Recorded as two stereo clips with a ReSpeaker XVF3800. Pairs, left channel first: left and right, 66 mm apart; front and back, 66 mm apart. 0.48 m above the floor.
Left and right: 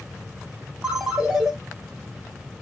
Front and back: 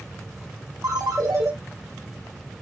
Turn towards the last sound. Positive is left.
turn(degrees=-165)